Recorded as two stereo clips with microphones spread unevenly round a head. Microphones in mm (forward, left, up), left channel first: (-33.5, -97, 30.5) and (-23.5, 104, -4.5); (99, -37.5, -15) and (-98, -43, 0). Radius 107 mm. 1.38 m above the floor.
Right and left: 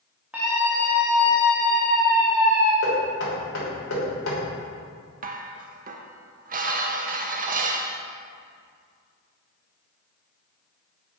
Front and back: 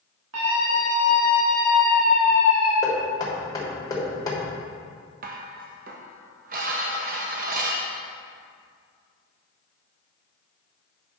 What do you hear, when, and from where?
0.3 s a scream: 170° left, 2.0 m; by 2.7 s straight behind, 3.5 m
2.8 s knocking: 70° right, 3 m
5.2 s dishes clattering: 140° left, 0.9 m